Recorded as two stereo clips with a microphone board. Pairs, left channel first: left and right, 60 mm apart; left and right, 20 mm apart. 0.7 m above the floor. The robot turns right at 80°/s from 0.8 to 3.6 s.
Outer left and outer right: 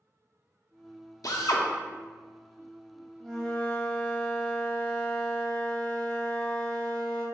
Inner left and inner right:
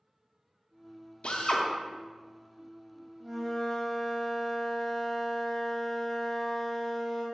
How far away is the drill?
About 0.6 m.